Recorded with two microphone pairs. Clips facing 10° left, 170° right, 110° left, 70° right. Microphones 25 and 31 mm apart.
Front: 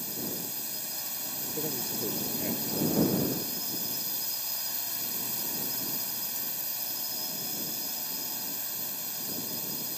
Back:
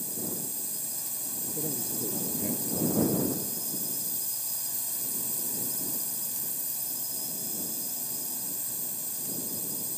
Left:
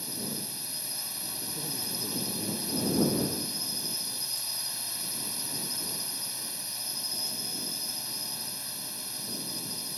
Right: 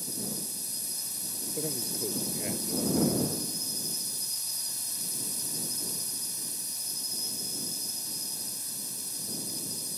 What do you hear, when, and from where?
0.0 s a drone: 55° left
1.5 s a man speaking: 55° right